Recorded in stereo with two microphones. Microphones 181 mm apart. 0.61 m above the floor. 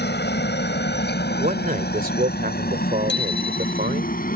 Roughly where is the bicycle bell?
Left.